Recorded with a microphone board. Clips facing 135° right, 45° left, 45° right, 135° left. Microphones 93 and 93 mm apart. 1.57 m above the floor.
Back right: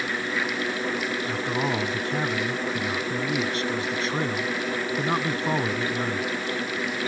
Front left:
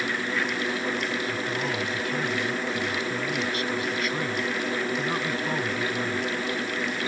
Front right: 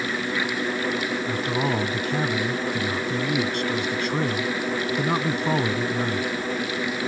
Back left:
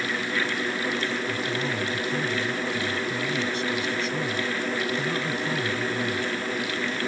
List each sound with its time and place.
1.2 s a man speaking: 75° right